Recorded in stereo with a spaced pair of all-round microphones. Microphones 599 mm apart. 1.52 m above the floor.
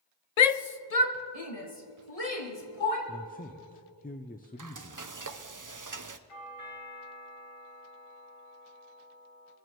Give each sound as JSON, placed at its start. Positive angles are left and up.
{"t": 0.4, "sound": "a shout", "side_deg": 85, "distance_m": 0.6}
{"t": 3.1, "sound": "a man speaking", "side_deg": 15, "distance_m": 0.5}
{"t": 4.6, "sound": "frying", "side_deg": -35, "distance_m": 0.6}
{"t": 6.3, "sound": "a doorbell", "side_deg": 60, "distance_m": 2.0}